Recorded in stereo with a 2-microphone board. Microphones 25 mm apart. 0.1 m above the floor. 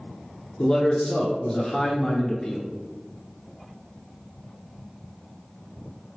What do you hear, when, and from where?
0.6 s a man speaking: 25° left (ahead or behind), 1.1 m